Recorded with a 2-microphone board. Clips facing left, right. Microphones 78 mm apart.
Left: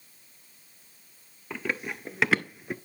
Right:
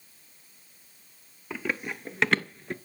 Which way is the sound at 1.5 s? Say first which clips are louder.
Even; centre (ahead or behind).